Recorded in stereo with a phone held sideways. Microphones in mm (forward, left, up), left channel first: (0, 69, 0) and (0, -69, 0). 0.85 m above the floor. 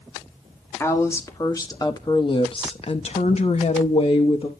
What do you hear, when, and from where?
0.8 s a woman speaking: 15° left (ahead or behind), 1.7 m; by 4.5 s 40° left (ahead or behind), 1.2 m